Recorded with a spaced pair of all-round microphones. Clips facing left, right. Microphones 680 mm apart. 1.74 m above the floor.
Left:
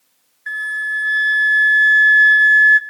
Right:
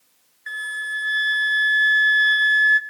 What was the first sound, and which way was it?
A flute, 20° left (ahead or behind).